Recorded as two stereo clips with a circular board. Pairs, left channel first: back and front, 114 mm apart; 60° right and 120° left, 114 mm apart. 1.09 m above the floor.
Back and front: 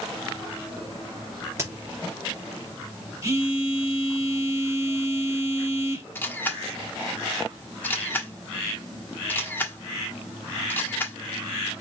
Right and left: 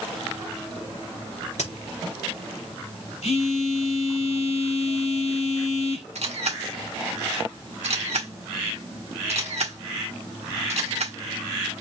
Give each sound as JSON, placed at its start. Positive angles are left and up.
{"t": 1.6, "sound": "a crack", "azimuth_deg": -65, "distance_m": 3.0}
{"t": 3.2, "sound": "a phone buzzing", "azimuth_deg": -60, "distance_m": 1.4}
{"t": 6.2, "sound": "a camera shutter", "azimuth_deg": 105, "distance_m": 1.4}